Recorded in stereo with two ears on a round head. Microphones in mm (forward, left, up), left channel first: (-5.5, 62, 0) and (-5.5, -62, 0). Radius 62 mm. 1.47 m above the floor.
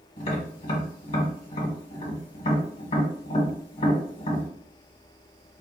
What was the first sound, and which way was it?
Tapping, 45° left (ahead or behind).